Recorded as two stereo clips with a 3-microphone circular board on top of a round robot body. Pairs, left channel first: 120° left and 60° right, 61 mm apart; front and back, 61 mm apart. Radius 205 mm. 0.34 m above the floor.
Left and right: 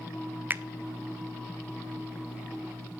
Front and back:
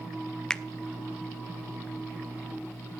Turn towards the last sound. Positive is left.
turn(degrees=-70)